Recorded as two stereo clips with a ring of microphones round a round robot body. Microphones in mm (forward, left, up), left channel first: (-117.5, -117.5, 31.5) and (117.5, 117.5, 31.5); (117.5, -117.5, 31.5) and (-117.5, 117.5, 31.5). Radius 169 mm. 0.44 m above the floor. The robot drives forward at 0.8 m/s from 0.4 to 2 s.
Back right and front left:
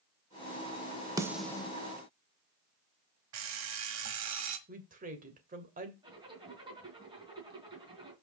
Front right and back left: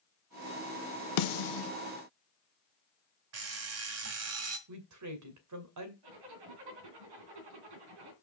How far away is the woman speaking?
About 2 m.